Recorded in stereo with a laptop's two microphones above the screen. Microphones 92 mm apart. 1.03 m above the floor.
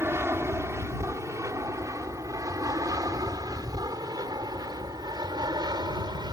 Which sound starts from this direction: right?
An aircraft, at 0.0 s.